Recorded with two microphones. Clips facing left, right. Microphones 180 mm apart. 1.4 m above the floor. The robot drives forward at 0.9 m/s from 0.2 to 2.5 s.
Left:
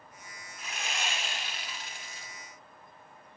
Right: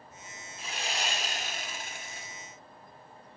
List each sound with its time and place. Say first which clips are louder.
0.6 s sawing: right 2 dB; 30° right (ahead or behind), 2 m; by 2.3 s 60° right (ahead or behind), 1.3 m